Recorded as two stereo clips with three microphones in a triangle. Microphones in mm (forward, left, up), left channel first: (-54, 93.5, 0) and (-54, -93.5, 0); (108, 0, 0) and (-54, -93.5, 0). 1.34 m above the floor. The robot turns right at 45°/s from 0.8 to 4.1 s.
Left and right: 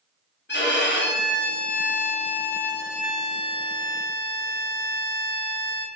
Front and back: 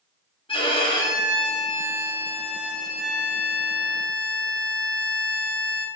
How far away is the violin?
About 0.5 m.